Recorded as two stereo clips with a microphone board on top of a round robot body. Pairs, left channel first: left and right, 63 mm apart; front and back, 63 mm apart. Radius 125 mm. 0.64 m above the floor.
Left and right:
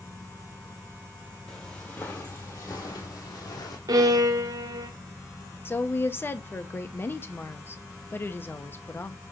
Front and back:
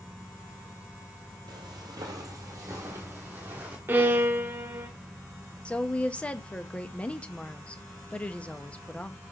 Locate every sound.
1.5 s footsteps: 170° left, 1.1 m; by 3.8 s 115° left, 1.6 m
3.9 s a violin: 120° right, 0.6 m
5.7 s a woman speaking: 60° left, 1.1 m